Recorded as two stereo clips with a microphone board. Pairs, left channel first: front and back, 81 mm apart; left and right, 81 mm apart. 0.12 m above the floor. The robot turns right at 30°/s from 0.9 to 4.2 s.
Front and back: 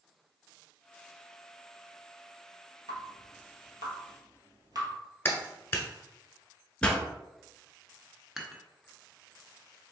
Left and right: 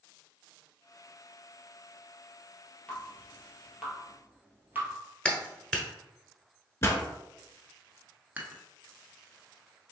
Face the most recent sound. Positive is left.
turn(degrees=-105)